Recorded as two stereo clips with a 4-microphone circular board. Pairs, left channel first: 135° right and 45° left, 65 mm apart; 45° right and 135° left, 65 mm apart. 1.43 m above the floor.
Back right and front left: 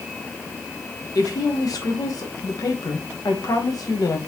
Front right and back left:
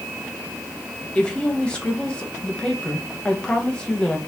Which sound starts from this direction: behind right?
A woman speaking, at 1.1 s.